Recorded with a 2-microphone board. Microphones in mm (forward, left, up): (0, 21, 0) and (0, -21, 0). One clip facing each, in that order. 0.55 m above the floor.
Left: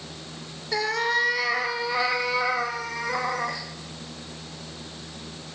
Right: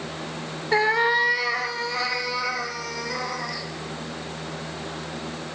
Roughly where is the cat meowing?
Right.